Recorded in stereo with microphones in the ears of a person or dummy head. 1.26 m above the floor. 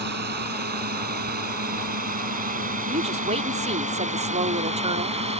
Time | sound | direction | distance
0.0 | a drone | 55° right (ahead or behind) | ?
2.9 | a woman speaking | 30° right (ahead or behind) | ?